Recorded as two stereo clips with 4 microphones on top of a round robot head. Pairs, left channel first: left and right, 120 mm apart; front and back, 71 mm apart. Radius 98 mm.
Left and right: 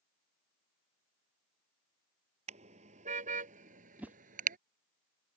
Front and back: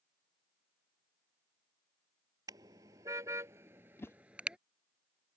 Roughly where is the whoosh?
Ahead.